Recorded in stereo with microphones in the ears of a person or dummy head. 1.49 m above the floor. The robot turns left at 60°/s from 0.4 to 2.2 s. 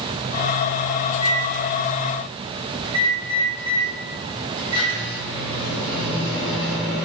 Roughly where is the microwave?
Ahead left.